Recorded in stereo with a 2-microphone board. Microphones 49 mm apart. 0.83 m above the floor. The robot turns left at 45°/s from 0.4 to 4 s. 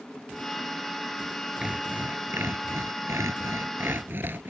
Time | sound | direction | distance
1.6 | sawing | 20° right | ?